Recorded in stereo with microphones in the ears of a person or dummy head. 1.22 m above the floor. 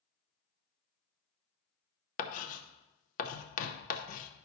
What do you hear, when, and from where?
2.2 s writing: 45° left (ahead or behind), 0.8 m